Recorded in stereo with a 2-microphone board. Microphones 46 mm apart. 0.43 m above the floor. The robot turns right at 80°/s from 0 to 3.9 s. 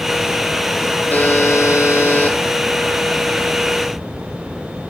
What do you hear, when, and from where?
1.1 s a buzzer: 40° left, 6 m; by 2.4 s 140° left, 6 m